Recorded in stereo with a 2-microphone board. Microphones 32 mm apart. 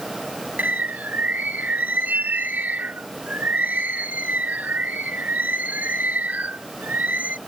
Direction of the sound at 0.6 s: 65° right (ahead or behind).